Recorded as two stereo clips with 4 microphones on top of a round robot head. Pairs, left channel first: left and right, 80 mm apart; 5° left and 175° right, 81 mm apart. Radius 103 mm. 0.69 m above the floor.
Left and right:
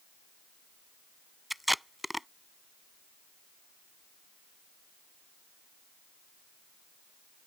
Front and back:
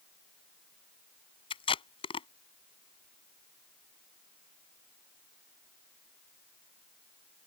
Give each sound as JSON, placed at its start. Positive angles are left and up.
{"t": 1.5, "sound": "tape being pulled", "azimuth_deg": 0}